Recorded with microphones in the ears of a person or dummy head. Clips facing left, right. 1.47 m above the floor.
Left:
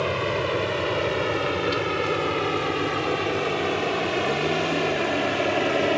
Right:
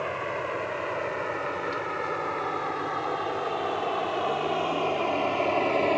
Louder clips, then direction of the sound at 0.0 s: Left 6 dB; 60° left (ahead or behind).